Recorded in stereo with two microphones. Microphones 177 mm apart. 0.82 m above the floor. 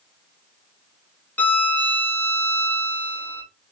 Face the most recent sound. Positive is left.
turn(degrees=10)  # may be behind; listen again after turning